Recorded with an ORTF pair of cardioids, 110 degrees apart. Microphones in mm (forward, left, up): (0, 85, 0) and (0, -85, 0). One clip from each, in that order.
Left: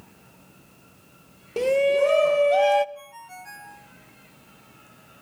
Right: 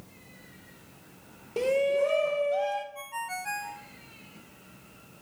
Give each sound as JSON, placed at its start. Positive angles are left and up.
{"t": 1.6, "sound": "a shout", "azimuth_deg": 20, "distance_m": 1.5}
{"t": 3.0, "sound": "a ringtone", "azimuth_deg": -40, "distance_m": 2.5}